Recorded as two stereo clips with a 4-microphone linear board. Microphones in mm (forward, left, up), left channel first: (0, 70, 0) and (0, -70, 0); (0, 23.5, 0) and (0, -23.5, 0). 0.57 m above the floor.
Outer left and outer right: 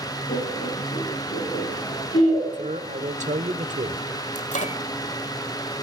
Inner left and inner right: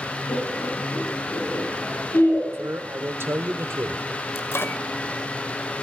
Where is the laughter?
65° left (ahead or behind), 7 m.